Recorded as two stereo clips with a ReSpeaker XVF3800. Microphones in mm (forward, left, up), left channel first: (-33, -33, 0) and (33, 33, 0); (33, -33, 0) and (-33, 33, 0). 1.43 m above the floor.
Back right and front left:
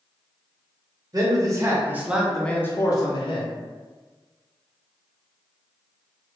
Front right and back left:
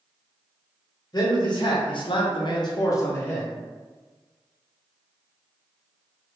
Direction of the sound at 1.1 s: 5° right.